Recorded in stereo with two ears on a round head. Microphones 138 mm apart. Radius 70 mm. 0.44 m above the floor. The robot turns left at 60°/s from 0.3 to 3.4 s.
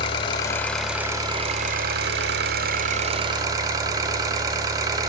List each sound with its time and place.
0.0 s an engine running: 30° left, 1.2 m; by 5.1 s 155° right, 1.2 m